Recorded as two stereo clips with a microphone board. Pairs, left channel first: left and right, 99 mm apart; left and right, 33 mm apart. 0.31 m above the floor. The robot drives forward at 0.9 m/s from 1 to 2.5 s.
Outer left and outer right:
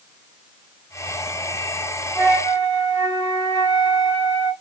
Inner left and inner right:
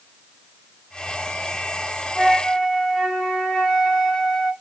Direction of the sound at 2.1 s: 30° left (ahead or behind).